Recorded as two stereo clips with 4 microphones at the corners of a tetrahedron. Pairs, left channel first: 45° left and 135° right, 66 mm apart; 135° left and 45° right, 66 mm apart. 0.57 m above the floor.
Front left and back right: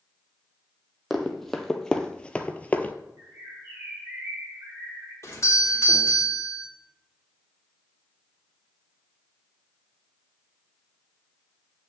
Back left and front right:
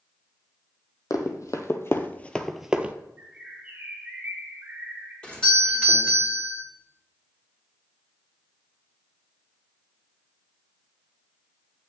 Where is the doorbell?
65° left, 1.9 m.